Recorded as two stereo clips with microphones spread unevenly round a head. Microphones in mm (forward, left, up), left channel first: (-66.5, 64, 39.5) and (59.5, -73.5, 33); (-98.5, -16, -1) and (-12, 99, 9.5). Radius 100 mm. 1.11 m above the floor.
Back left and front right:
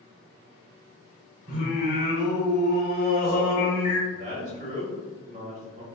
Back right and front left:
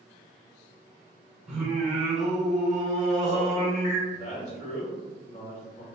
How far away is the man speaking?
About 1.2 m.